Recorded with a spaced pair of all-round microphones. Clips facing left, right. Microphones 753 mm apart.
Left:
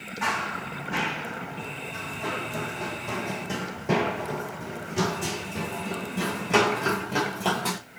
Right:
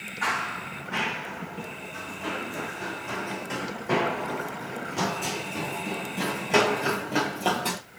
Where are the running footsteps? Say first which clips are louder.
Left 2 dB; 55° left (ahead or behind), 2.5 m; by 7.8 s 35° left (ahead or behind), 3.5 m.